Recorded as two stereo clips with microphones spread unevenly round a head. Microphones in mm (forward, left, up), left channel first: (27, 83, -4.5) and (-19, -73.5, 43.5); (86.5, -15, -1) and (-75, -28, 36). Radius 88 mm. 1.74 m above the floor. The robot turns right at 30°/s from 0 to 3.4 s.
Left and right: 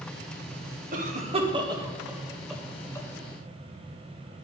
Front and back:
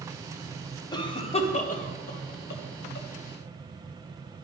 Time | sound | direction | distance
0.9 | a cough | 65° right | 1.4 m